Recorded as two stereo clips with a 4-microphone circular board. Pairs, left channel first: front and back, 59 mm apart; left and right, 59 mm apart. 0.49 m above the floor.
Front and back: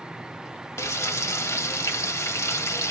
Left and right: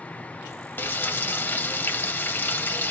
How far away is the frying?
About 0.8 m.